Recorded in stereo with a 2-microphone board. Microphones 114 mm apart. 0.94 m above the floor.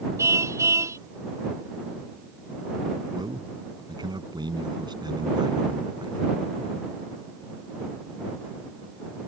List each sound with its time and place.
0.2 s a car horn: 25° right (ahead or behind)
3.1 s a man speaking: 40° right (ahead or behind)